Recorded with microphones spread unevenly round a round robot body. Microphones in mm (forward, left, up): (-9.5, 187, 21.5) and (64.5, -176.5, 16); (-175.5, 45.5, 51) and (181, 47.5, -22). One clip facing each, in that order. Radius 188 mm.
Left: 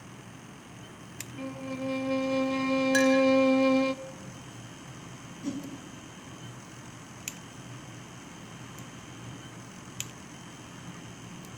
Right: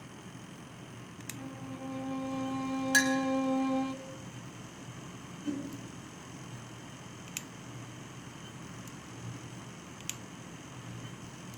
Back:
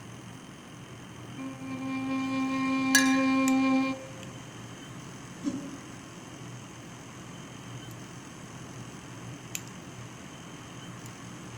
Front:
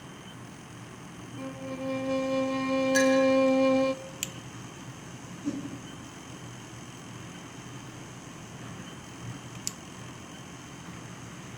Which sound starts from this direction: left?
A violin, at 1.4 s.